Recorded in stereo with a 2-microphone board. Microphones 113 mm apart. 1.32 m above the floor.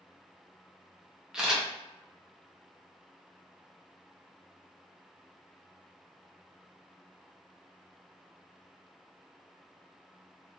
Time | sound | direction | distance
1.3 | a camera shutter | 5° right (ahead or behind) | 0.8 m